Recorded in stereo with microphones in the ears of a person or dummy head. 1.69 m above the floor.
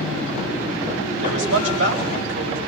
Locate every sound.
1.2 s a man speaking: 85° right, 10 m